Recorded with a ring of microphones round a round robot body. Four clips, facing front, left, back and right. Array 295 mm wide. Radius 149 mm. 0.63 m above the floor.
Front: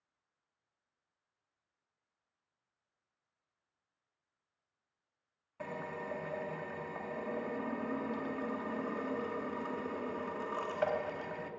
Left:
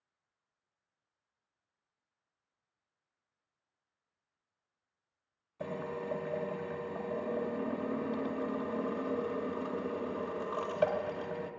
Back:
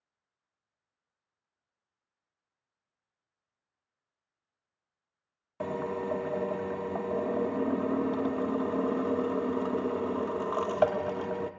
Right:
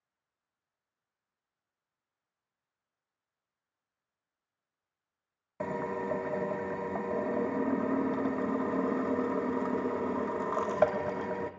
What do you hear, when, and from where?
5.6 s a drill: 140° right, 0.7 m